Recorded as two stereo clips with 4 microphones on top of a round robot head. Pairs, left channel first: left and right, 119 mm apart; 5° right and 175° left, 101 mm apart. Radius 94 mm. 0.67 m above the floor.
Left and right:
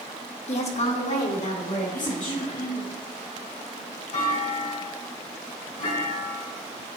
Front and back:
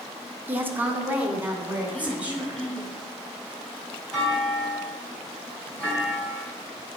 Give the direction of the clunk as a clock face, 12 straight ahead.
9 o'clock.